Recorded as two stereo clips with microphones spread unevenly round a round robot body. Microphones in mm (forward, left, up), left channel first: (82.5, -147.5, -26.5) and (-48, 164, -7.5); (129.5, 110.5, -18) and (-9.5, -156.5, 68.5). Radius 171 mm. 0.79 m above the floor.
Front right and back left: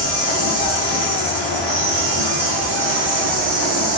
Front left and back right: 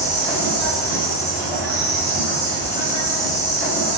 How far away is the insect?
About 1.9 m.